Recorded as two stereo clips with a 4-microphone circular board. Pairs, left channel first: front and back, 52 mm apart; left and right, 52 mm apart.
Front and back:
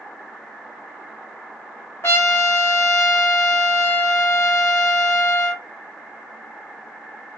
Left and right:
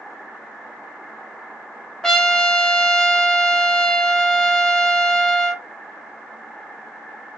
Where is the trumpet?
15° left, 0.6 m.